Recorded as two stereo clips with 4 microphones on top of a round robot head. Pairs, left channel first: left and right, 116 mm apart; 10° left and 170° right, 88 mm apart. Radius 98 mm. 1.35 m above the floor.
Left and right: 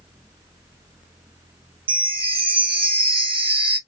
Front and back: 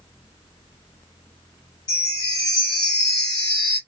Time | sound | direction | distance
1.9 | a chime | 50° right | 0.7 m